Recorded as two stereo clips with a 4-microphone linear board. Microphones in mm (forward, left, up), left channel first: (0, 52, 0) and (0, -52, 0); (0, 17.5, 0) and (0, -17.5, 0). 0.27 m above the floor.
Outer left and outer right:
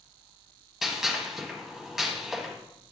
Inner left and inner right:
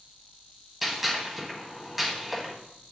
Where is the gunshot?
5° right (ahead or behind), 1.5 m.